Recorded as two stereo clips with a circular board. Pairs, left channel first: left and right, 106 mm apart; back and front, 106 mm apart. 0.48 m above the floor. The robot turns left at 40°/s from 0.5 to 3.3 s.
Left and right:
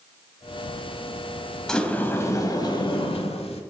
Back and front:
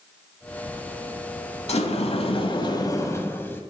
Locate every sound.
1.7 s a sliding door: 175° left, 0.8 m; by 3.6 s 110° left, 0.8 m